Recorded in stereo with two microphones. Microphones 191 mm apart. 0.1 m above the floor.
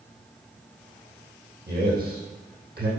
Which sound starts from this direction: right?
A man speaking, at 1.7 s.